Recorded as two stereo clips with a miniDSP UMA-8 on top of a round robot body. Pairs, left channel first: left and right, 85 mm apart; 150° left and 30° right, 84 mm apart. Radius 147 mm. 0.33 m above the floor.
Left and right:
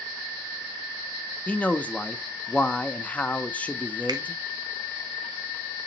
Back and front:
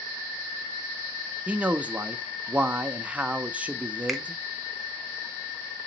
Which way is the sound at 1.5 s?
30° left.